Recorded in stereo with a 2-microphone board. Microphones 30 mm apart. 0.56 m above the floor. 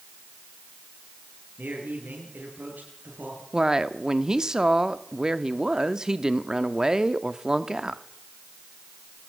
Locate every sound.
1.6 s a man speaking: 70° right (ahead or behind), 9.5 m
3.5 s a woman speaking: 20° right (ahead or behind), 1.0 m